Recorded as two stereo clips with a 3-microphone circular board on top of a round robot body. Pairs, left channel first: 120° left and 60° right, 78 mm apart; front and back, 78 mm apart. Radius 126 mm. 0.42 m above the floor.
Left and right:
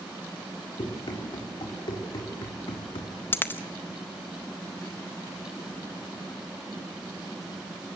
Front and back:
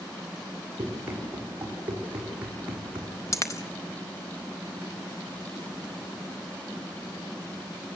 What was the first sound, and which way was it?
Running footsteps, 105° left.